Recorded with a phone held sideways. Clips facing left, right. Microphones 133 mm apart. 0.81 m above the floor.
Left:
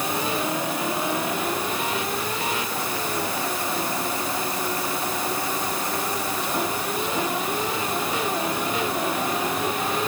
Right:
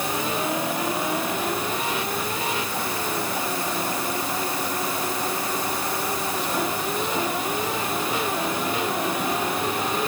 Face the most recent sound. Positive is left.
No sound to turn to.